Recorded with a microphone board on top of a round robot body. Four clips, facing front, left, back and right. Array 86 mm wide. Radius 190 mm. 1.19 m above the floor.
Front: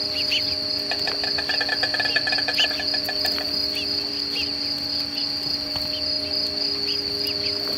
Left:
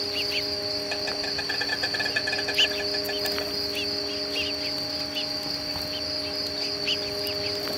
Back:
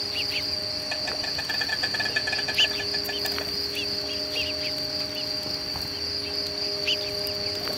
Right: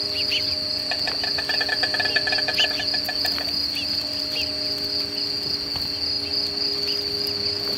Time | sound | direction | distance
0.0 | an insect | 40° right | 1.1 m